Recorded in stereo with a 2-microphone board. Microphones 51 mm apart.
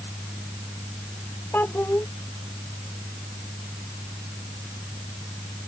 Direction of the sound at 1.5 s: 40° left (ahead or behind).